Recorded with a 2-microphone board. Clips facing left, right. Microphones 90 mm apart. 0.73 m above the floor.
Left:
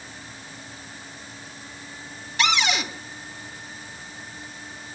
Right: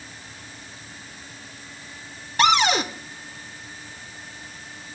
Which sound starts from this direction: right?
A cupboard door, at 2.4 s.